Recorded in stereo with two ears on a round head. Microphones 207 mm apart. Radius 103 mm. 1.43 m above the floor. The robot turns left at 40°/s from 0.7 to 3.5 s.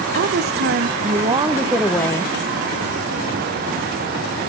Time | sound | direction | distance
0.1 | a woman speaking | 135° right | 1.0 m